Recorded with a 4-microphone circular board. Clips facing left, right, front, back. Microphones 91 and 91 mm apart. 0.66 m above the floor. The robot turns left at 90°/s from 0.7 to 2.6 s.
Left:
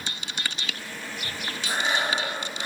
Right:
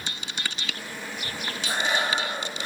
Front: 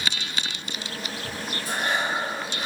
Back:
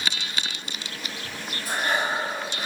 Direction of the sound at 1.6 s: Straight behind.